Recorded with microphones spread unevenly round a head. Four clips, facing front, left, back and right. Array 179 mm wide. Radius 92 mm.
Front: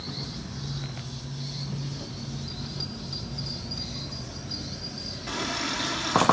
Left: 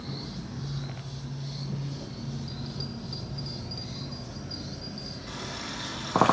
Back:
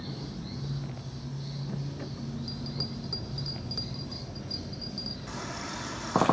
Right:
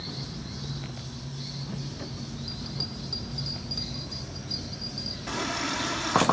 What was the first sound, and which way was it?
A bell, straight behind.